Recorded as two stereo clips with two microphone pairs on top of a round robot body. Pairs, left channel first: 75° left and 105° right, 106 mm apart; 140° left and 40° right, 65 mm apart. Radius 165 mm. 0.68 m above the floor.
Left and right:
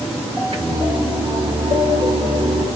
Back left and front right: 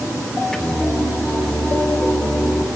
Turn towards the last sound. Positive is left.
turn(degrees=-130)